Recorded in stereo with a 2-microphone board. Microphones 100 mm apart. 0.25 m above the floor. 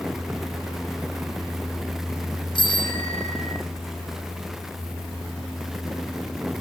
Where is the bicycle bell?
55° left (ahead or behind), 9 m.